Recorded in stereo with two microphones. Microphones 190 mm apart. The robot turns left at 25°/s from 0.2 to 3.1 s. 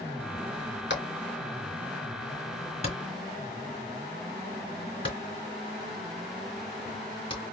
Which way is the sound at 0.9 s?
75° left (ahead or behind).